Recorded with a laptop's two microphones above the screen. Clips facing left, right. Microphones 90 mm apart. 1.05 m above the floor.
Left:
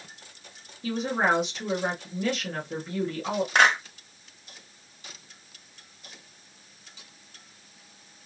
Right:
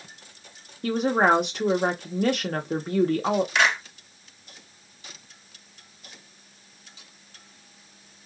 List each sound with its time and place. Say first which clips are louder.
0.8 s a woman speaking: right 5 dB; 55° right (ahead or behind), 0.7 m
3.5 s a clap: left 2 dB; 50° left (ahead or behind), 2 m